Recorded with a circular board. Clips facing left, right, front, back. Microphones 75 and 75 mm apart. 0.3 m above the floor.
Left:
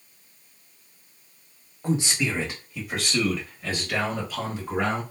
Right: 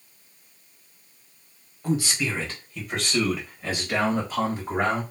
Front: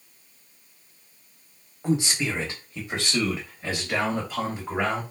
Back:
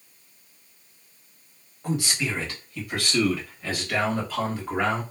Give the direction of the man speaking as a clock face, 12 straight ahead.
10 o'clock.